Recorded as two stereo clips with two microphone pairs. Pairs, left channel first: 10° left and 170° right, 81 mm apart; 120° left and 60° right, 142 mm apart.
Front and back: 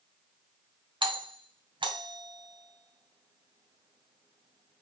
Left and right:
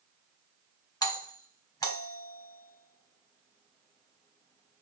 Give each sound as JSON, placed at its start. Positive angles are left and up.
{"t": 1.0, "sound": "a doorbell", "azimuth_deg": -175, "distance_m": 1.4}